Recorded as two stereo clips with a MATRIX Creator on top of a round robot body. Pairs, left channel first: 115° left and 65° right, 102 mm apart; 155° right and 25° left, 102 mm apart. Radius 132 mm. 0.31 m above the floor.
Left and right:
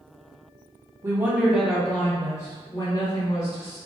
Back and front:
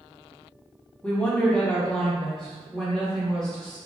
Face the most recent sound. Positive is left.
turn(degrees=115)